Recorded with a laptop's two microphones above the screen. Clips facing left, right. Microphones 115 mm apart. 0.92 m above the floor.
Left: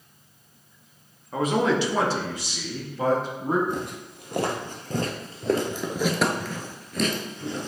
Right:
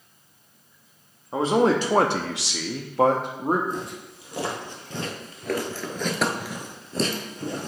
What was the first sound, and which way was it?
A man speaking, 25° right (ahead or behind).